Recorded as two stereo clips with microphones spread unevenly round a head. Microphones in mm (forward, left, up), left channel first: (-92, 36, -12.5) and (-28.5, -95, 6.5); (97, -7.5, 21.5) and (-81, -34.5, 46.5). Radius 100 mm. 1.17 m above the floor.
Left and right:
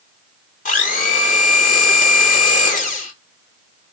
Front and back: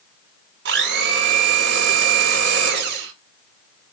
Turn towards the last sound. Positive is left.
turn(degrees=150)